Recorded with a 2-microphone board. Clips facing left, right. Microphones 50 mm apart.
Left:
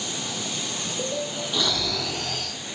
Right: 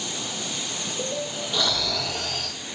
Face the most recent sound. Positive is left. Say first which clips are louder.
# right 1 dB
turn(degrees=0)  # may be behind; listen again after turning